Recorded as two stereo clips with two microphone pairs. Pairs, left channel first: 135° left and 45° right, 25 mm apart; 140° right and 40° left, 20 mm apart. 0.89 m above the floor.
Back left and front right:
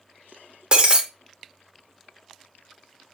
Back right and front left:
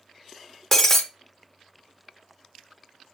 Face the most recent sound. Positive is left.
turn(degrees=-80)